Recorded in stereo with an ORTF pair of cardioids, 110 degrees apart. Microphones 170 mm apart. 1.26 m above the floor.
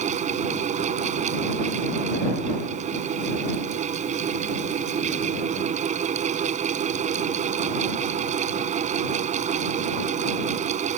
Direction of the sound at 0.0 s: 45° right.